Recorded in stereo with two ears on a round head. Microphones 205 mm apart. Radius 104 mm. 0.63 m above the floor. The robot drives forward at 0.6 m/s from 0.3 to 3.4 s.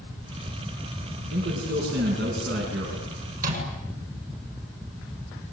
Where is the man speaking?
45° right (ahead or behind), 7 m; by 3.0 s 50° right (ahead or behind), 6.5 m.